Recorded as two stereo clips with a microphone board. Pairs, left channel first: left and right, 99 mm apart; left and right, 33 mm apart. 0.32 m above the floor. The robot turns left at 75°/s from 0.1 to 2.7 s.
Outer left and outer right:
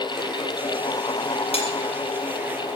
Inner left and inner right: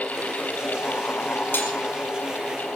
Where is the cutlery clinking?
80° left, 5 m.